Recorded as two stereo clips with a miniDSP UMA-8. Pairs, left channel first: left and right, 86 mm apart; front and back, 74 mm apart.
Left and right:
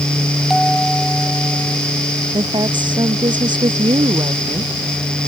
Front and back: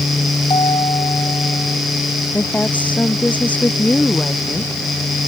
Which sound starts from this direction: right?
A woman speaking, at 2.3 s.